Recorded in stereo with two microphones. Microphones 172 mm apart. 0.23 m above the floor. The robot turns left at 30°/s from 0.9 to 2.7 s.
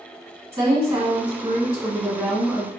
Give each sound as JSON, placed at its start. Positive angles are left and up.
{"t": 0.5, "sound": "a woman speaking", "azimuth_deg": -130, "distance_m": 1.5}